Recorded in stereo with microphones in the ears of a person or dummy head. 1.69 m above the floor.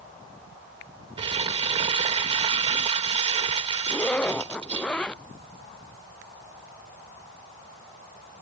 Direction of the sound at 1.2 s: 30° right (ahead or behind).